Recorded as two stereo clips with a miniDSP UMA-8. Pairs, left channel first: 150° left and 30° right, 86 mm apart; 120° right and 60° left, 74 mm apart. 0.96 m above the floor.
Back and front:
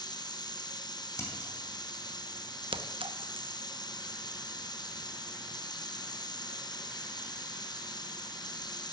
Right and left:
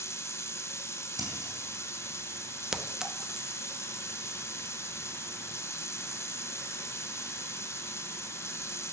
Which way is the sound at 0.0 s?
175° right.